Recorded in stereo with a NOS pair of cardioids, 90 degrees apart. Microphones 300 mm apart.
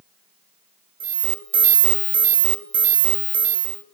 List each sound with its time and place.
1.0 s an alarm: 40° right, 1.2 m